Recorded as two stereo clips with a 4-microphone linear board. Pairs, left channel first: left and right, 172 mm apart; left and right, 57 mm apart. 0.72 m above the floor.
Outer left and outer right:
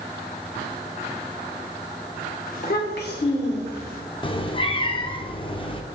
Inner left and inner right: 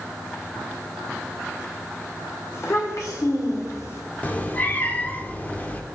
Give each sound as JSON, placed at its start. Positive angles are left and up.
{"t": 2.5, "sound": "a child speaking", "side_deg": 50, "distance_m": 2.0}
{"t": 4.2, "sound": "a cat meowing", "side_deg": 30, "distance_m": 0.6}